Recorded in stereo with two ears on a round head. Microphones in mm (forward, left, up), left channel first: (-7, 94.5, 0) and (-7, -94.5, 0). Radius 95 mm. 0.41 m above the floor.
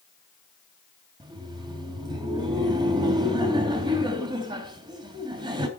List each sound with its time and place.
1.2 s laughter: 20° right (ahead or behind), 3 m